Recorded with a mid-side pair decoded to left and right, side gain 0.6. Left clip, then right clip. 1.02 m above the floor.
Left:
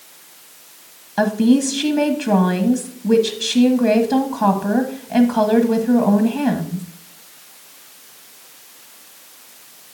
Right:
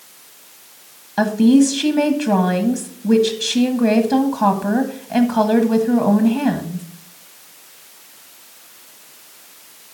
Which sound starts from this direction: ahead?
A woman speaking, at 1.2 s.